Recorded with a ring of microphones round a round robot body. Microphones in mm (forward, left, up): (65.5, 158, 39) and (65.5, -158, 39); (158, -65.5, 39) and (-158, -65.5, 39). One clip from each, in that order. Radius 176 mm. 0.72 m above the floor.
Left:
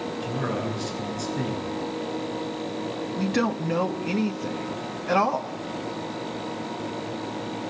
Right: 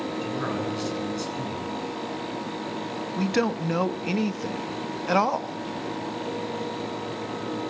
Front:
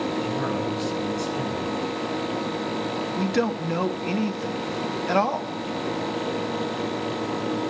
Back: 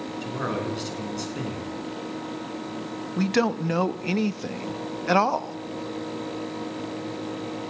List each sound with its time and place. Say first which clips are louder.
0.2 s a man speaking: left 2 dB, front 3 dB; 120° right, 10 m
3.2 s a man speaking: right 1 dB, back 3 dB; 140° right, 1.3 m